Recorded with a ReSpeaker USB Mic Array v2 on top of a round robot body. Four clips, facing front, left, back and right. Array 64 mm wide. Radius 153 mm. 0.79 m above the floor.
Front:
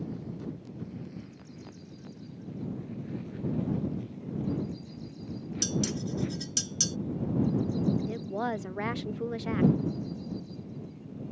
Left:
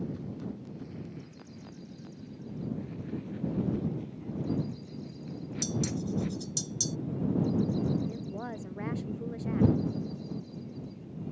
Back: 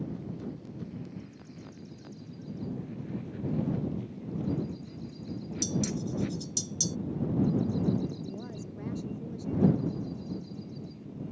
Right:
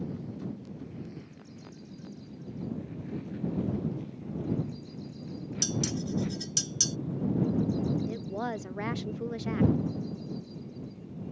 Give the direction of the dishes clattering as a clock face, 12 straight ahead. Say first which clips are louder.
Even, even; 1 o'clock.